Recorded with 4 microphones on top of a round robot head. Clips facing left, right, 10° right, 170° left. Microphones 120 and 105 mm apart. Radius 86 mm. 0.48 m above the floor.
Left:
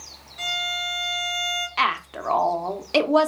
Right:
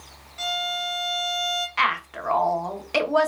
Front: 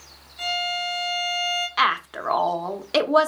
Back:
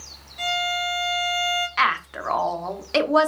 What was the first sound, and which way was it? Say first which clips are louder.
A violin: right 3 dB, back 2 dB; 175° right.